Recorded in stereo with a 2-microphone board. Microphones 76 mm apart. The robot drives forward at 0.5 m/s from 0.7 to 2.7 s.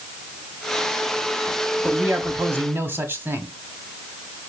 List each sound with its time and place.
1.8 s a man speaking: 30° right (ahead or behind), 1.2 m